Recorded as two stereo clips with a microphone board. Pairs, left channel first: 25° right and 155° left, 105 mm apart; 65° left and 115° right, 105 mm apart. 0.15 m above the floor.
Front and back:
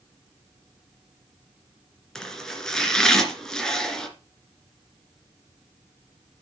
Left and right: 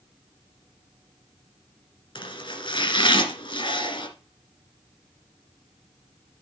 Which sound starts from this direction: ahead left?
Chopping, at 2.1 s.